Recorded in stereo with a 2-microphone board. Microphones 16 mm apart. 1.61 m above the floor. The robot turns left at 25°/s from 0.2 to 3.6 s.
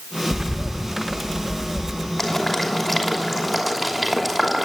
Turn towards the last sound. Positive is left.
turn(degrees=0)  # may be behind; listen again after turning